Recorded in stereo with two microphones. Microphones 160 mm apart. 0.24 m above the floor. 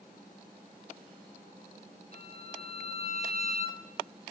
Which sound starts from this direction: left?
A violin, at 2.1 s.